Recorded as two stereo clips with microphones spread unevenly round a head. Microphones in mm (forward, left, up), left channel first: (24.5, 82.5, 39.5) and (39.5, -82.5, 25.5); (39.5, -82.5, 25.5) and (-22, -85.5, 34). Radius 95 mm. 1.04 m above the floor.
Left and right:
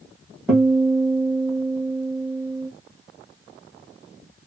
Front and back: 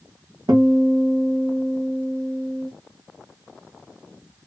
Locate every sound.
0.5 s a guitar: 175° right, 1.2 m